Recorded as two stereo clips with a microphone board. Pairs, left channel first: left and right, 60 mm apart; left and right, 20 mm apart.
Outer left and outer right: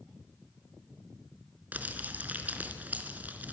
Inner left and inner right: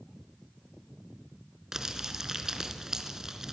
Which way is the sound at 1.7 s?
25° right (ahead or behind).